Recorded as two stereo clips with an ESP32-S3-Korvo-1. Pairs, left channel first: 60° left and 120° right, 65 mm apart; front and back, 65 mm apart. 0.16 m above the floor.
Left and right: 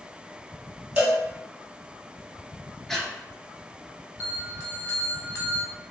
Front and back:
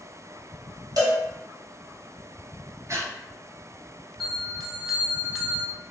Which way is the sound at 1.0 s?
175° left.